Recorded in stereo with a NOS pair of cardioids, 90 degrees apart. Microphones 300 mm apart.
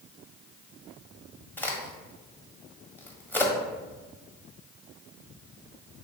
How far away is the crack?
About 0.9 m.